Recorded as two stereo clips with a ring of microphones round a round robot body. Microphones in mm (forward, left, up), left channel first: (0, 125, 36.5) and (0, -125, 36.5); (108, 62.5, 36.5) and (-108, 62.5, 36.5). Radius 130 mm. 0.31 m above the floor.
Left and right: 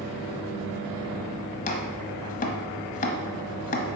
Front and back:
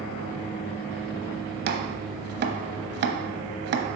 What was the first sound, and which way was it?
Chopping, 145° left.